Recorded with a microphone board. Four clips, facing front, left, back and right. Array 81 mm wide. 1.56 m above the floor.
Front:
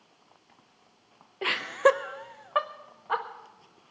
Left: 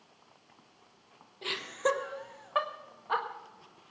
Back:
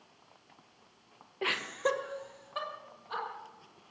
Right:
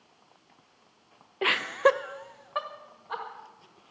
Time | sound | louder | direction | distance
1.4 | laughter | right 8 dB, front 9 dB | 85° right | 0.8 m